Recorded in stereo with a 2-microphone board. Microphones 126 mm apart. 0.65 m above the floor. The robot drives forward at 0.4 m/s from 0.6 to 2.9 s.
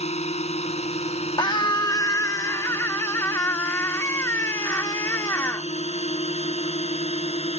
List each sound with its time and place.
0.0 s a drone: 60° left (ahead or behind); by 7.6 s 55° left (ahead or behind)
1.4 s a scream: 35° left (ahead or behind); by 5.7 s 20° left (ahead or behind)